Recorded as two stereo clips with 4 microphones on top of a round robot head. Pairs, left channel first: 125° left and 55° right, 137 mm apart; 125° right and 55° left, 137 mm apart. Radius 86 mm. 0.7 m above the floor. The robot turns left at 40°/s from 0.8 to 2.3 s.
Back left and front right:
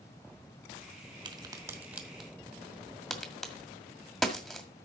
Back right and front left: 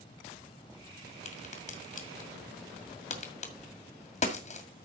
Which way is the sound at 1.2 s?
100° right.